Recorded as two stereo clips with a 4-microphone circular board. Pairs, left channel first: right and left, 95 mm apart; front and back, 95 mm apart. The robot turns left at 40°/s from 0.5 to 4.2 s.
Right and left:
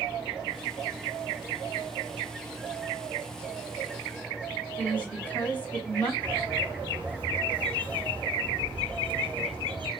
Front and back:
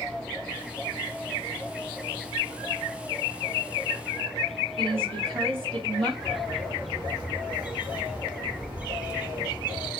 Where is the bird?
110° left, 2.5 m.